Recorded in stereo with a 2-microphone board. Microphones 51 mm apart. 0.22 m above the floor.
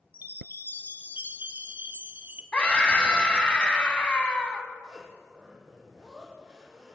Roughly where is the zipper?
Centre.